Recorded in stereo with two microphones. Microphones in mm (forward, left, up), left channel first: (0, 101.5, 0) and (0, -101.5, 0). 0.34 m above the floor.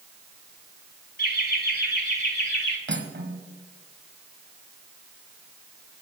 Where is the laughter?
50° left (ahead or behind), 2.5 m; by 2.8 s 55° left (ahead or behind), 3 m.